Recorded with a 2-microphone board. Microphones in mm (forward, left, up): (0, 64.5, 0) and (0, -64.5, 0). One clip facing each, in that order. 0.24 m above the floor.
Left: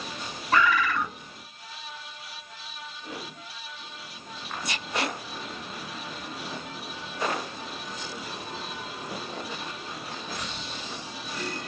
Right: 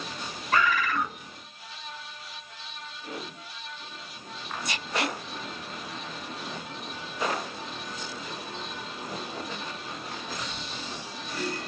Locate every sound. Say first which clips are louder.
0.5 s a bird: left 2 dB; 30° left (ahead or behind), 1.8 m